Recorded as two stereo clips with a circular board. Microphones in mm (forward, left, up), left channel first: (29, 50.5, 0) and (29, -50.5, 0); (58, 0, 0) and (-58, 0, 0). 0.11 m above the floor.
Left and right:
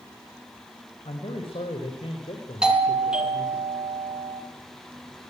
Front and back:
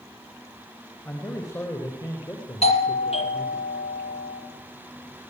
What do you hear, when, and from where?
1.1 s a man speaking: 65° left, 6.5 m; by 3.6 s 50° left, 7 m
2.6 s a doorbell: 10° right, 4 m